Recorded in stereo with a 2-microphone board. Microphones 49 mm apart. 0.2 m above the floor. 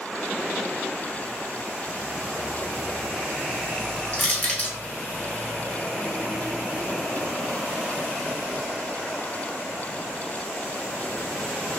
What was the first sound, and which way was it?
Crushing, 35° left (ahead or behind).